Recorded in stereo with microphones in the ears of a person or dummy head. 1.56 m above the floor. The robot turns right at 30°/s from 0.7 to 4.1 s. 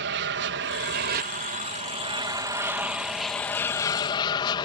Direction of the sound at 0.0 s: 75° right.